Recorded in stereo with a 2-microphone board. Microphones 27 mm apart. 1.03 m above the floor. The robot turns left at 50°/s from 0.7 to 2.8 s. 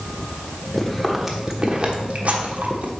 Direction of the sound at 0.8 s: 10° left (ahead or behind).